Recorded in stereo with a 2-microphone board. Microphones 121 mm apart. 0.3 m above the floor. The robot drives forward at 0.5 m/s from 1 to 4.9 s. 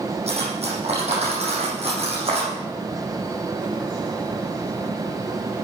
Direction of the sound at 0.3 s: 60° right (ahead or behind).